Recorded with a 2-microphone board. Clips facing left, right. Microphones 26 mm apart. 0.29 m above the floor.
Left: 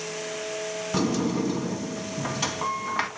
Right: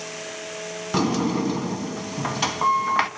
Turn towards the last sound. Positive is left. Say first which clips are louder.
# right 3 dB
turn(degrees=-25)  # may be behind; listen again after turning